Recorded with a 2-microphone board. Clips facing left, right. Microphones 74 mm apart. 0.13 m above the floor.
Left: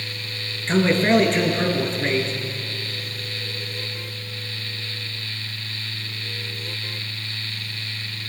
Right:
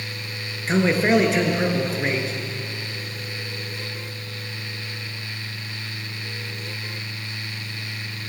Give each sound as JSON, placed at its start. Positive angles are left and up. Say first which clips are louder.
{"t": 0.7, "sound": "a man speaking", "louder": "left 1 dB", "side_deg": -10, "distance_m": 1.5}